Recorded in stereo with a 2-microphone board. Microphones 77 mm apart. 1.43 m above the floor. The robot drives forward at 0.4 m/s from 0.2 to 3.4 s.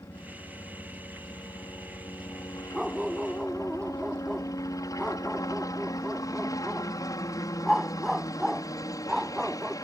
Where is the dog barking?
5° right (ahead or behind).